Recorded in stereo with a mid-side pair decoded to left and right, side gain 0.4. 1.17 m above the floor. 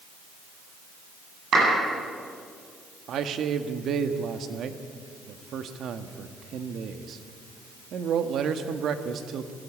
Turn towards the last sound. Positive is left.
turn(degrees=-70)